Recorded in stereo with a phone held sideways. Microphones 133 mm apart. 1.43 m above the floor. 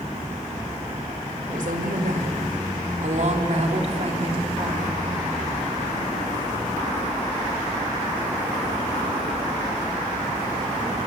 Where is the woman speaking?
75° right (ahead or behind), 4 m; by 4.9 s 35° right (ahead or behind), 2.5 m.